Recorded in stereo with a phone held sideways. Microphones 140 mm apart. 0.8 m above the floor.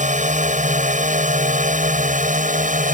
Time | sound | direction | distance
0.0 | a drone | 60° right (ahead or behind) | ?